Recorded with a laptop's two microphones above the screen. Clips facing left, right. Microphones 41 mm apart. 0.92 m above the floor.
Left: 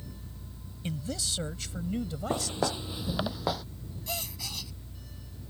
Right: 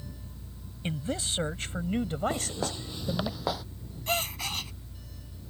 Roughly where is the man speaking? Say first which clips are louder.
Right 3 dB; right.